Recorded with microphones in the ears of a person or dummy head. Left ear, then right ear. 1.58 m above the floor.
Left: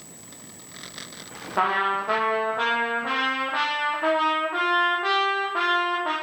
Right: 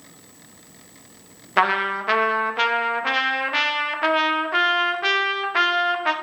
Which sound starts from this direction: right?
A trumpet, at 1.6 s.